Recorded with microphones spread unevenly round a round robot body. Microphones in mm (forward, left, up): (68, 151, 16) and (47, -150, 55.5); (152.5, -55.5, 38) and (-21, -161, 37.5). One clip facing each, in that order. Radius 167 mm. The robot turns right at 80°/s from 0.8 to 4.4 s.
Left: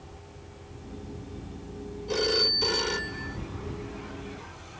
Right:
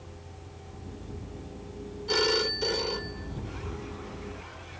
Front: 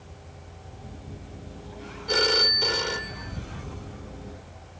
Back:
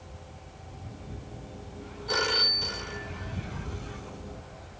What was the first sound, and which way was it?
A phone ringing, 35° right.